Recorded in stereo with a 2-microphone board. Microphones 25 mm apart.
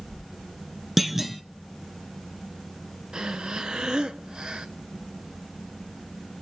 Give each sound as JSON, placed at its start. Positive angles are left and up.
{"t": 1.0, "sound": "a clunk", "side_deg": -5, "distance_m": 0.7}
{"t": 3.1, "sound": "breathing", "side_deg": -35, "distance_m": 1.0}